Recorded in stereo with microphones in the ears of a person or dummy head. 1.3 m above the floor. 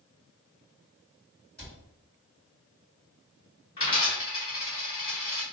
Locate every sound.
1.6 s a cupboard door: 10° left (ahead or behind), 2.0 m
3.8 s a dropped coin: 30° left (ahead or behind), 1.5 m